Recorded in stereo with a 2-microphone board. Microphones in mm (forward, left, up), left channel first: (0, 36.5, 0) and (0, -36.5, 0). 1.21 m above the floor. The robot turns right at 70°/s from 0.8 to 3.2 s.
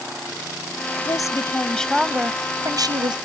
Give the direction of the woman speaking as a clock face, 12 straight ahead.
8 o'clock.